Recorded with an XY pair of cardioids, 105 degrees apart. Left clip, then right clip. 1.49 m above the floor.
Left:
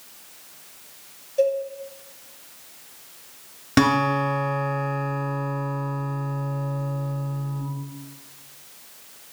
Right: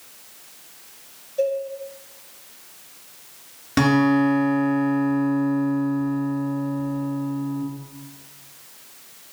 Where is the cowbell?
35° left, 0.9 m.